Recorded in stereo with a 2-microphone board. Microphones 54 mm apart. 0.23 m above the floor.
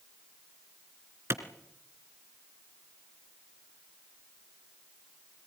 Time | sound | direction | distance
1.3 | a clap | 50° right (ahead or behind) | 2.5 m